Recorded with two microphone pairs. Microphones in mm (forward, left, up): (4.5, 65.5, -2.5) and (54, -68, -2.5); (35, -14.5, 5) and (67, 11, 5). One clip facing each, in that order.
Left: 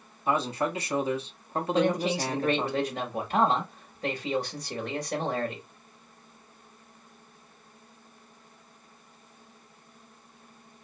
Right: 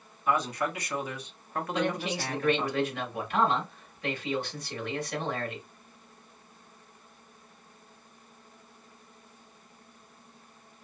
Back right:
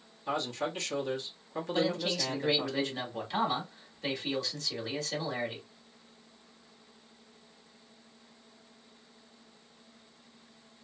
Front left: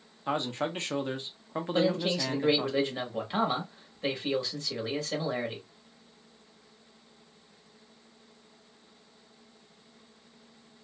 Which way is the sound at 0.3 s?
65° left.